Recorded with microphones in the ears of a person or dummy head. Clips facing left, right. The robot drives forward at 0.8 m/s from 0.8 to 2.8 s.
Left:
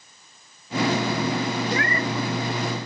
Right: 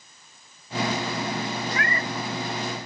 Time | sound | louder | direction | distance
1.7 | a cat meowing | left 4 dB | 30° left (ahead or behind) | ?